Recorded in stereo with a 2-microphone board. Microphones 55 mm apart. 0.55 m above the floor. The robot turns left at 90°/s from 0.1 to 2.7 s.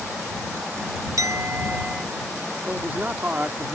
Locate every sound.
1.2 s a clink: 100° right; by 2.0 s straight behind
2.7 s a man speaking: 35° right (ahead or behind)